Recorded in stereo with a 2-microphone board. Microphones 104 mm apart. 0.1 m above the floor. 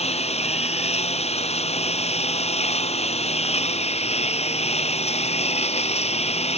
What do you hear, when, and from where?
0.0 s a lawn mower: 90° left